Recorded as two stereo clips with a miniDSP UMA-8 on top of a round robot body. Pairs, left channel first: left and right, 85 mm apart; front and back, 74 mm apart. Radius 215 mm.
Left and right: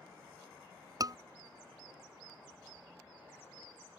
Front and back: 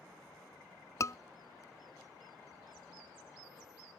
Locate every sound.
1.0 s a scream: 45° right